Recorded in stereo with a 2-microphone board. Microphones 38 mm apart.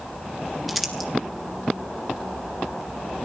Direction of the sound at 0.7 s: 5° right (ahead or behind).